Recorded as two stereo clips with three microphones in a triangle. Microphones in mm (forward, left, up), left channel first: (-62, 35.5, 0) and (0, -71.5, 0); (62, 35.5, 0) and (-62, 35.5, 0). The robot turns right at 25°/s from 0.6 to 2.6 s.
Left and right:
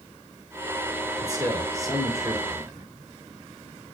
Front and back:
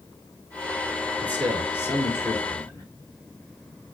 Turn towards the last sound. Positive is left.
turn(degrees=-30)